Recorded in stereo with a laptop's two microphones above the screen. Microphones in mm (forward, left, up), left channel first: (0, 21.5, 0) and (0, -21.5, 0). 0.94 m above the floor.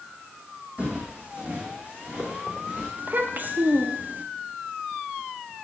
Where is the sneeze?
No sneeze in this recording.